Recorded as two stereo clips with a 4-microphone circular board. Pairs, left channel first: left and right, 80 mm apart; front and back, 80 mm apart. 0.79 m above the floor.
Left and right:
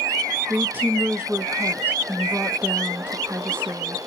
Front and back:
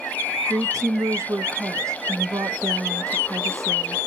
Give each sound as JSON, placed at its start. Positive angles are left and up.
{"t": 0.5, "sound": "a woman speaking", "azimuth_deg": -150, "distance_m": 0.8}